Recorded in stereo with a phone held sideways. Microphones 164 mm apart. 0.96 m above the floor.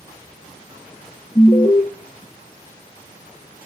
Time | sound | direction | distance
1.4 | an alarm | 30° left (ahead or behind) | 0.8 m